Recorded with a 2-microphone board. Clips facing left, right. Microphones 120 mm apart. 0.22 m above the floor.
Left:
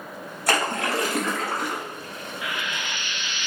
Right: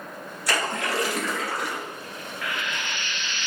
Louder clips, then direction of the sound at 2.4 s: Right 1 dB; 15° left (ahead or behind).